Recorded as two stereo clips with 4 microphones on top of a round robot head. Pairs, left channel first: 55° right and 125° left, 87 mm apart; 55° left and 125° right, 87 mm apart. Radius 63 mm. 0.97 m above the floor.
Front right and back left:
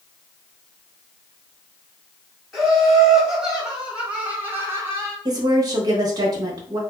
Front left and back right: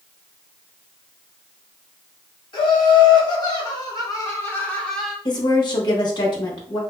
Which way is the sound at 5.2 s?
85° left.